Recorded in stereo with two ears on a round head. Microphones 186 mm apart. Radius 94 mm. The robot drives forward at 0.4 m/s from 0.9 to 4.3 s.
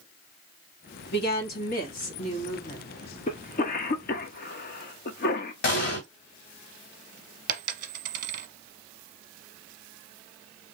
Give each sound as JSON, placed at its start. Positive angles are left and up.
{"t": 1.1, "sound": "a woman speaking", "side_deg": 55, "distance_m": 1.3}
{"t": 3.3, "sound": "a cough", "side_deg": 35, "distance_m": 0.7}
{"t": 5.6, "sound": "an explosion", "side_deg": 50, "distance_m": 2.0}
{"t": 7.5, "sound": "a dropped coin", "side_deg": -40, "distance_m": 0.7}